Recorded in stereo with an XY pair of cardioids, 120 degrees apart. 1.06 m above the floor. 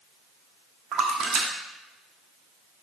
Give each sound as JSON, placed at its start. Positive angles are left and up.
{"t": 0.9, "sound": "a splash", "azimuth_deg": -55, "distance_m": 0.7}